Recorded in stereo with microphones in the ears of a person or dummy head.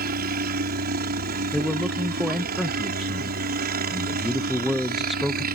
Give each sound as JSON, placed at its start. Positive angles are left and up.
{"t": 0.0, "sound": "a helicopter", "side_deg": -50}
{"t": 1.5, "sound": "a man speaking", "side_deg": 0}